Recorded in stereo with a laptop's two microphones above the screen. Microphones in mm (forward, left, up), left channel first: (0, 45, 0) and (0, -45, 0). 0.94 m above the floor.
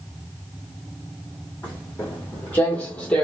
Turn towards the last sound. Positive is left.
turn(degrees=15)  # may be behind; listen again after turning